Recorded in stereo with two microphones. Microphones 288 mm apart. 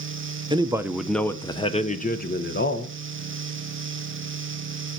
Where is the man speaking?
20° right (ahead or behind), 1.1 m; by 3.0 s 45° left (ahead or behind), 1.6 m.